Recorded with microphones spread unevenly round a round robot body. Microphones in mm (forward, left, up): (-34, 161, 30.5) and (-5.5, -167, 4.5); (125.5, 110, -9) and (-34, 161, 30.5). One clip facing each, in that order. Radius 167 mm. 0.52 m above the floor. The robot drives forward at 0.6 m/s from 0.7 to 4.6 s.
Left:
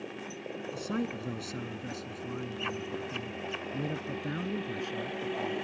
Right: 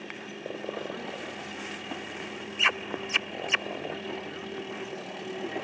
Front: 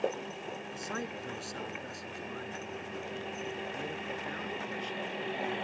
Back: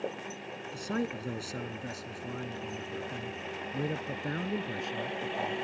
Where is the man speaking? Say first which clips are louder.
Left 3 dB, back 9 dB; 115° left; by 5.5 s 130° left.